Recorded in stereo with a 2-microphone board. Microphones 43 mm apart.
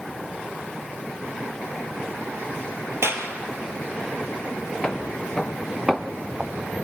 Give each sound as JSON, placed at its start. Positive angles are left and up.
{"t": 3.0, "sound": "a clap", "side_deg": -70, "distance_m": 2.5}
{"t": 4.8, "sound": "footsteps", "side_deg": 15, "distance_m": 1.8}